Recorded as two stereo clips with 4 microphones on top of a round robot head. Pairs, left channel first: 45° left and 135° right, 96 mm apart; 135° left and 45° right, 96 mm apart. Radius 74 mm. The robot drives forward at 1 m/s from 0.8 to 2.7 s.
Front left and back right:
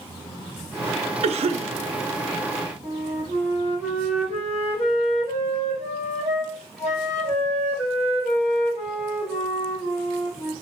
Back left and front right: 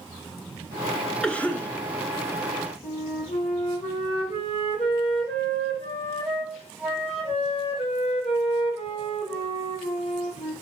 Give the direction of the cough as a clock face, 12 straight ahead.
5 o'clock.